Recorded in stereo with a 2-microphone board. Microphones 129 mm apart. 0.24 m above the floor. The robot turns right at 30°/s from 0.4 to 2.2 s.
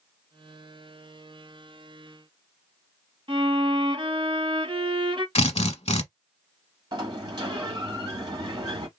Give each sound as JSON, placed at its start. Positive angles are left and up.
{"t": 3.3, "sound": "a violin", "side_deg": -40, "distance_m": 1.4}
{"t": 5.3, "sound": "a drill", "side_deg": 55, "distance_m": 0.8}
{"t": 6.9, "sound": "a sliding door", "side_deg": -35, "distance_m": 1.4}